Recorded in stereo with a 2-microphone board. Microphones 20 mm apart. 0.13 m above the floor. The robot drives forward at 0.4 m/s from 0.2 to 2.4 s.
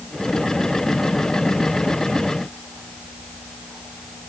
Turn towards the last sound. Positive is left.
No sound to turn to.